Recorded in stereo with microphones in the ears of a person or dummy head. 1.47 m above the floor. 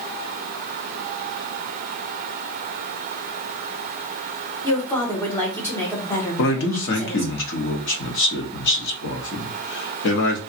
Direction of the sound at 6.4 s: 60° left (ahead or behind).